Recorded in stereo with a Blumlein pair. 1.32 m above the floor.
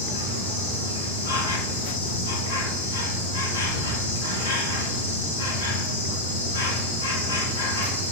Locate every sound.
0.0 s an insect: 60° left, 2.5 m